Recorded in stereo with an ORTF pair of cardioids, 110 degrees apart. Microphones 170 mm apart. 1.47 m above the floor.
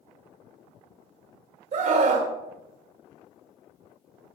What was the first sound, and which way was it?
A scream, 50° right.